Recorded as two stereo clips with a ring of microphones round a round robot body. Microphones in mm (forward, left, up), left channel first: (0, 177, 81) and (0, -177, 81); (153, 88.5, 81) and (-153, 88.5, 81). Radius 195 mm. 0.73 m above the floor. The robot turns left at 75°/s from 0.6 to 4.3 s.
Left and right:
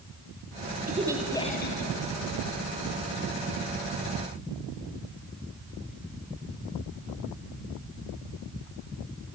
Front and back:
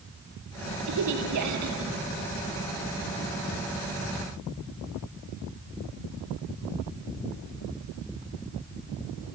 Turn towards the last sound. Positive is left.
turn(degrees=-50)